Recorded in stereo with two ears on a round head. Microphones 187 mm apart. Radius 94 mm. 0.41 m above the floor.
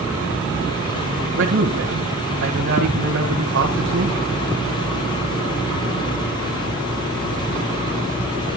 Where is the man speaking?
60° right (ahead or behind), 1.9 m.